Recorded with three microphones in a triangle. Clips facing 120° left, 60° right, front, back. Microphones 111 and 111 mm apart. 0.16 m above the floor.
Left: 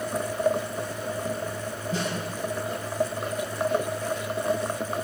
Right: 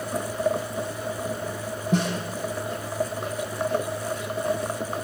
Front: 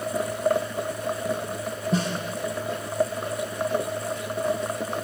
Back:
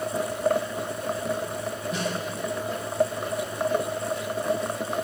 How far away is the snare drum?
About 8 m.